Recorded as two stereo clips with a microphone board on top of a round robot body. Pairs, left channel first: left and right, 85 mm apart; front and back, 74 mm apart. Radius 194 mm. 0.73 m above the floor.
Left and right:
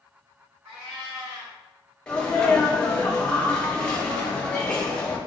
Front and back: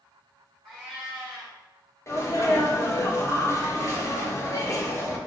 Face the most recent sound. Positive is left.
turn(degrees=15)